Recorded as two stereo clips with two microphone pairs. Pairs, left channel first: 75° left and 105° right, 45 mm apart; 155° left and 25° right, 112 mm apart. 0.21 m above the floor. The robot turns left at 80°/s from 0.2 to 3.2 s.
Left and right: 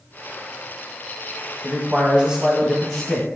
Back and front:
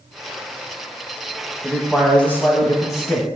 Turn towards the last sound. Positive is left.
turn(degrees=135)